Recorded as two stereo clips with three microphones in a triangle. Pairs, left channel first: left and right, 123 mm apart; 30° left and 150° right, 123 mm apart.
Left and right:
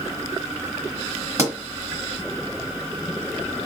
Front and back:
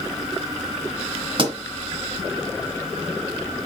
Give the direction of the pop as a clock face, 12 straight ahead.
5 o'clock.